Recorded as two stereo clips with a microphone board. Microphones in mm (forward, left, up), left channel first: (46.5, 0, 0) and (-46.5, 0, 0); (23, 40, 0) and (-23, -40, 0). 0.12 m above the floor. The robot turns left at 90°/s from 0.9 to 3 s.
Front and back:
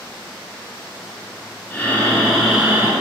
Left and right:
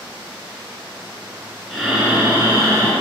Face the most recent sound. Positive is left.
turn(degrees=-155)